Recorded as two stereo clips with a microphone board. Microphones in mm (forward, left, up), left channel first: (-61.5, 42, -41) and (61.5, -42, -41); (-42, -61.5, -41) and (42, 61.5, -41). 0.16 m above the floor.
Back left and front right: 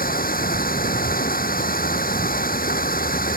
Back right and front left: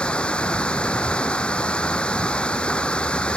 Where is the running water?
155° left.